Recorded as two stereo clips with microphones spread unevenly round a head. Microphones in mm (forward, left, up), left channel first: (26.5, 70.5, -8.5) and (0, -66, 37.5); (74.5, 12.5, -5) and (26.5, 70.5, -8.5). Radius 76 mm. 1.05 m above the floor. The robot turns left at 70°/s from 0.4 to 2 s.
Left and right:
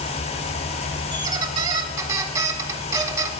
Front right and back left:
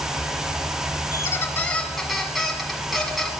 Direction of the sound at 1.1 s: 75° right.